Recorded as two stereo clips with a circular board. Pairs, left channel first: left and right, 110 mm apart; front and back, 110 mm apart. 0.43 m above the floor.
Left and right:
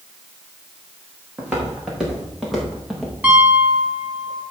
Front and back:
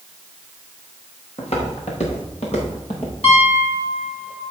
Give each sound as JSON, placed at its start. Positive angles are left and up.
{"t": 1.4, "sound": "footsteps", "azimuth_deg": -10, "distance_m": 5.5}
{"t": 3.2, "sound": "a piano", "azimuth_deg": -15, "distance_m": 4.5}